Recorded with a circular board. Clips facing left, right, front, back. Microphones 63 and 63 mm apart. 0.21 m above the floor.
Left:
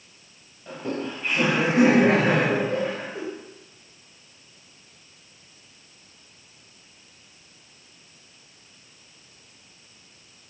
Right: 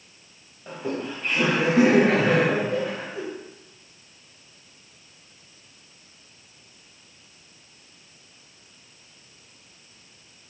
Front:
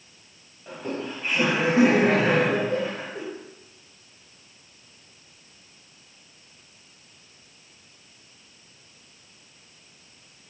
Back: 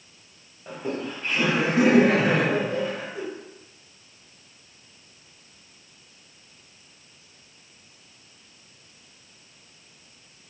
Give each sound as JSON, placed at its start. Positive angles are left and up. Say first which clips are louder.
{"t": 0.7, "sound": "laughter", "louder": "even, back 1 dB", "azimuth_deg": -135, "distance_m": 1.0}